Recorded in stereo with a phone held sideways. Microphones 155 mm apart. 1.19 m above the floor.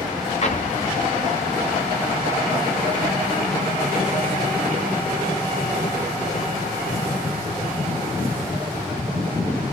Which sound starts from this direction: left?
An explosion, at 0.4 s.